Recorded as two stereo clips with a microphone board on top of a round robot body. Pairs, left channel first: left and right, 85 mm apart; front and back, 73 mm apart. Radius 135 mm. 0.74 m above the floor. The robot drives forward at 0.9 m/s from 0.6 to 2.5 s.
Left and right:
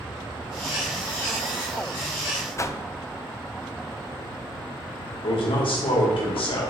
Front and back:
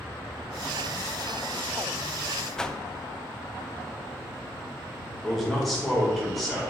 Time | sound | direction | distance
2.6 | a whoosh | 75° left | 0.6 m
5.2 | a man speaking | 90° left | 2.5 m